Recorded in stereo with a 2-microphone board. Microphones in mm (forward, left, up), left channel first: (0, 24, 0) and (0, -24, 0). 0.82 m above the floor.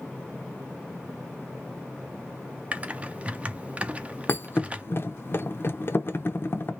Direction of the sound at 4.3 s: 50° left (ahead or behind).